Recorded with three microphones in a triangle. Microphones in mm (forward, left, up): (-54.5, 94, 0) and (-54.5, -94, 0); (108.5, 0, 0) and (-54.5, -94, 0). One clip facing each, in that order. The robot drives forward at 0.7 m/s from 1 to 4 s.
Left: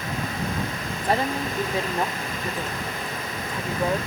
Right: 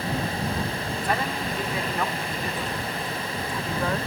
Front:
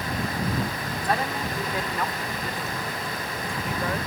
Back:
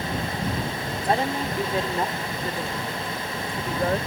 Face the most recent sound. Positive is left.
turn(degrees=160)